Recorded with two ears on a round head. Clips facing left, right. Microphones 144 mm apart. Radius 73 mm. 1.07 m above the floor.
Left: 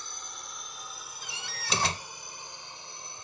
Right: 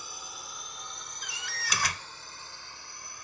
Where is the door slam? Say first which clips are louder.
Even; 25° left (ahead or behind).